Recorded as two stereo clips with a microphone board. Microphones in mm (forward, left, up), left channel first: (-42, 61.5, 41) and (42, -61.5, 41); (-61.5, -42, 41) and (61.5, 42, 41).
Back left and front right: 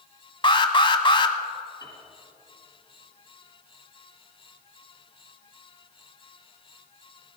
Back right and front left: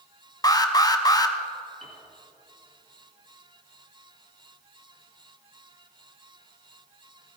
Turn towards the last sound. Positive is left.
turn(degrees=65)